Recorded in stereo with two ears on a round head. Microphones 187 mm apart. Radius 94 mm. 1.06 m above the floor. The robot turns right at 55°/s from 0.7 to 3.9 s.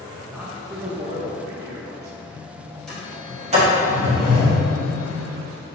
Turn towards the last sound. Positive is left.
turn(degrees=-55)  # may be behind; listen again after turning